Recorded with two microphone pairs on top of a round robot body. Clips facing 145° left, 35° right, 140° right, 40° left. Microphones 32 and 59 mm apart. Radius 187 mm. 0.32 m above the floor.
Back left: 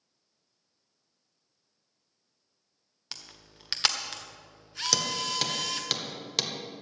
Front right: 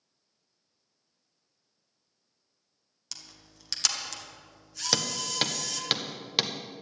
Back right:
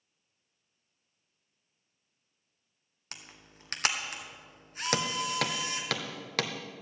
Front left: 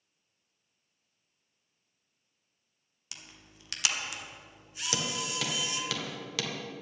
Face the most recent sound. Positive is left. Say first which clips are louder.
# even, back right 4 dB
turn(degrees=-110)